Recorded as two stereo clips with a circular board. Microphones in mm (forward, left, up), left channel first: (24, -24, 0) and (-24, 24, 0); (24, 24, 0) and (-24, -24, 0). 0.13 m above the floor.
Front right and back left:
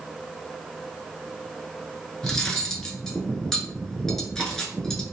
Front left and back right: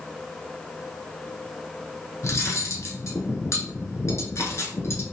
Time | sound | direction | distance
2.2 | cutlery clinking | 35° left | 0.9 m